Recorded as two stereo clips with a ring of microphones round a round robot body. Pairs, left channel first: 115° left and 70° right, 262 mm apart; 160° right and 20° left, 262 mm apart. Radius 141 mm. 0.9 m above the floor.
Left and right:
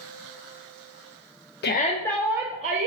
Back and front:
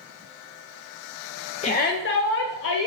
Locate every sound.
1.6 s a shout: 145° left, 0.5 m; by 2.9 s 120° right, 0.7 m